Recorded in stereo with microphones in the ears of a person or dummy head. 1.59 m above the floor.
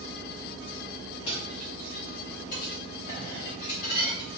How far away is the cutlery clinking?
About 1.2 m.